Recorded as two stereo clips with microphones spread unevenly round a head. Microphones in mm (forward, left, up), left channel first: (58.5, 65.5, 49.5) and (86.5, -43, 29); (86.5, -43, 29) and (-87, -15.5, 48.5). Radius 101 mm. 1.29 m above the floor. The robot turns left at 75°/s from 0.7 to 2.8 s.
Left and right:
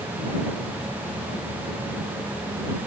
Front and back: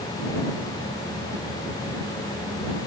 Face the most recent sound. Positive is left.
No sound to turn to.